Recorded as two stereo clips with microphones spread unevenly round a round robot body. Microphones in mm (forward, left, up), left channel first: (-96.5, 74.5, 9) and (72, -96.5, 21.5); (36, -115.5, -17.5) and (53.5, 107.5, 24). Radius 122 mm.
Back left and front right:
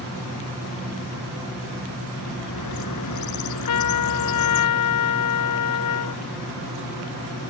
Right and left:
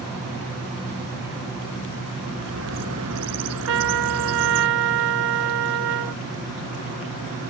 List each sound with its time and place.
2.2 s a bird: 120° left
3.7 s a trumpet: 120° left